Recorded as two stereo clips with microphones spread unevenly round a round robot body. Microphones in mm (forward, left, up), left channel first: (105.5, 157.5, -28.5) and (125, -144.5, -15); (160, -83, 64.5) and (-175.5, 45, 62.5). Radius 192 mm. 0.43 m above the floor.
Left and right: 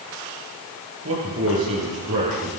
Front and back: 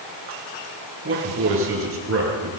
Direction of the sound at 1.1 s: 145° right.